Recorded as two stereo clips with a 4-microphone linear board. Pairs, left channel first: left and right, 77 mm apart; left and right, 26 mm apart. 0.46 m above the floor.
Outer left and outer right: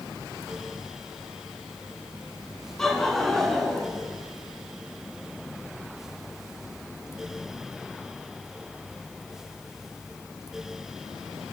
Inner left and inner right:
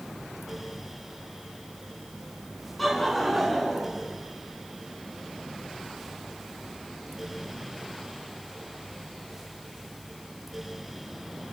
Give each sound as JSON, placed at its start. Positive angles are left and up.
{"t": 2.8, "sound": "laughter", "side_deg": 5, "distance_m": 5.5}